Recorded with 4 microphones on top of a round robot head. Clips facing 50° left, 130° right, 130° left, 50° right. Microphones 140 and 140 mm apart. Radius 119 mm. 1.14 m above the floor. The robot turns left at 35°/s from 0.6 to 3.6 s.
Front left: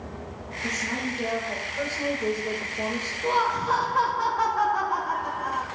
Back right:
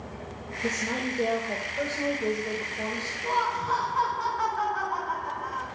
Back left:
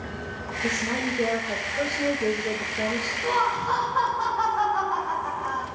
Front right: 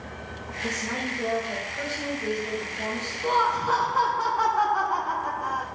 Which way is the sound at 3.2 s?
40° left.